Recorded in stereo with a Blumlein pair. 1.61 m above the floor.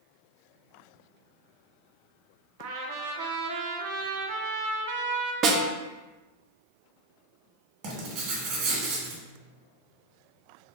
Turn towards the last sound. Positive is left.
turn(degrees=-40)